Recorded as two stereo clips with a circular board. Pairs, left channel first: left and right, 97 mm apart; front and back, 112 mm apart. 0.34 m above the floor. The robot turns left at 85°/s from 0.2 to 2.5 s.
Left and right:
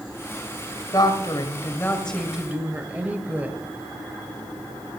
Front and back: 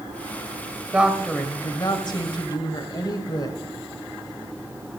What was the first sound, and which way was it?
A woman speaking, 110° left.